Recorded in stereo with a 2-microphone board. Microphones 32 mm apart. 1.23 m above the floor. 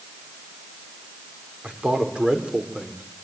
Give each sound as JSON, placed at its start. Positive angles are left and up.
{"t": 1.6, "sound": "a man speaking", "side_deg": -35, "distance_m": 4.5}